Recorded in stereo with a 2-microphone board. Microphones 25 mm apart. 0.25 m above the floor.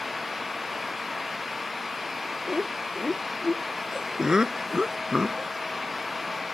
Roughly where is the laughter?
Right.